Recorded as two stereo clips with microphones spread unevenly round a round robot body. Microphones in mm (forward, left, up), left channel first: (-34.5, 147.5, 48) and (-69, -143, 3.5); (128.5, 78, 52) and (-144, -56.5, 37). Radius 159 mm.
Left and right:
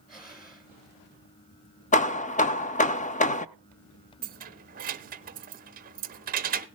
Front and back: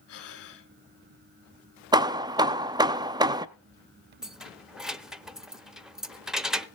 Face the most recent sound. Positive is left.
turn(degrees=-70)